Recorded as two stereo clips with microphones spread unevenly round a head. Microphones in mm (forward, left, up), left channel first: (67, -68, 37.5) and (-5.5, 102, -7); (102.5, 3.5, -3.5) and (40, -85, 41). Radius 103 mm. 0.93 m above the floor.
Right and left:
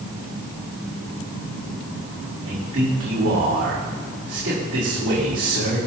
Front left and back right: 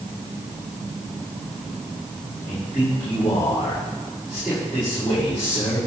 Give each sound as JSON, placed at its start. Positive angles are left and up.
{"t": 2.5, "sound": "a man speaking", "azimuth_deg": 120, "distance_m": 4.0}